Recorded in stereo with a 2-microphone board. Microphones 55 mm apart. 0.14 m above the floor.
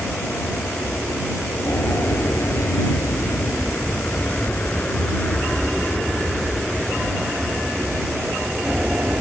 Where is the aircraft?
65° left (ahead or behind); by 9.2 s 20° right (ahead or behind).